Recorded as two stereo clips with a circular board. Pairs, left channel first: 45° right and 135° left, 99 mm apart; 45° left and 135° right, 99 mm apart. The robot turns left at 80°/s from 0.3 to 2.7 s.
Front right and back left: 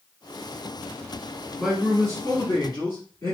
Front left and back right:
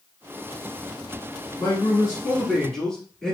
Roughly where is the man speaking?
Ahead left.